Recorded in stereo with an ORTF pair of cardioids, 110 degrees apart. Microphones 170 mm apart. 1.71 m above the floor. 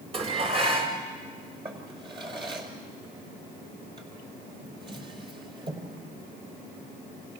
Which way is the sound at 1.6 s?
30° right.